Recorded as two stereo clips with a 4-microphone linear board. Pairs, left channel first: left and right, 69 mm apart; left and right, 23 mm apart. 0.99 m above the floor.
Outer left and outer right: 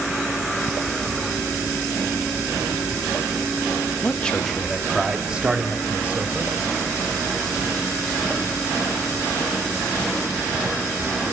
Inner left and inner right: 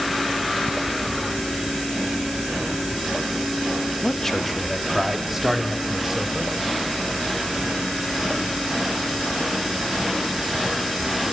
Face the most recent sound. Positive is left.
turn(degrees=-30)  # may be behind; listen again after turning